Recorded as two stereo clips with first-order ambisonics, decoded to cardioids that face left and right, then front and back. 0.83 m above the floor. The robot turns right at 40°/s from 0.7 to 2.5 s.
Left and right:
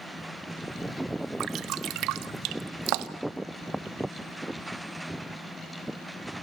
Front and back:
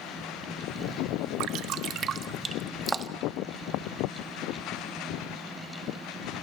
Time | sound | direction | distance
1.4 | dripping | 145° right | 1.2 m